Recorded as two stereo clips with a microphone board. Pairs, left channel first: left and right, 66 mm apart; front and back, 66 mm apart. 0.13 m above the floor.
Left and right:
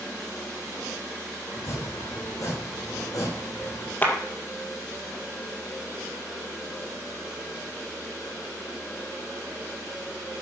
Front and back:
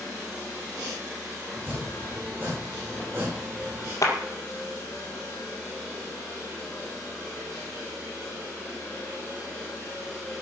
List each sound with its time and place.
1.5 s chopping: 120° left, 7 m
4.0 s a clap: 25° left, 3 m